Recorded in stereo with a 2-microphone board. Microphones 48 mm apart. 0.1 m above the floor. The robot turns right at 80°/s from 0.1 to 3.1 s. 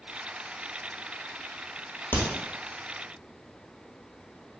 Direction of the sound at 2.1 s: 50° left (ahead or behind).